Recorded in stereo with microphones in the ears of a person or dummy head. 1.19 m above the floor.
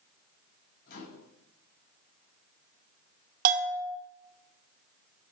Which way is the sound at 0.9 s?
50° left (ahead or behind).